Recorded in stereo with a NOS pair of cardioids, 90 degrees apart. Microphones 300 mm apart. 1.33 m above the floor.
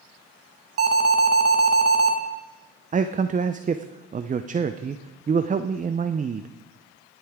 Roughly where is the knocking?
No knocking in this recording.